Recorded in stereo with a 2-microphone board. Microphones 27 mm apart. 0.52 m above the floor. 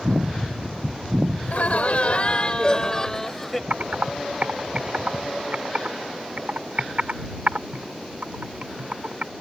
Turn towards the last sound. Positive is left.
turn(degrees=-60)  # may be behind; listen again after turning